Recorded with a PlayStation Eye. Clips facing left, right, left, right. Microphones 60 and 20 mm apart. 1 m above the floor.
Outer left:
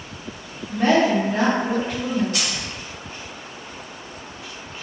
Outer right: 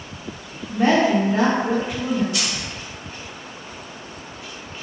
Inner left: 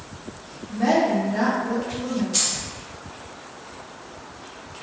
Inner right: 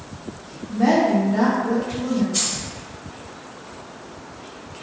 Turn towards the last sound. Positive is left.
turn(degrees=50)  # may be behind; listen again after turning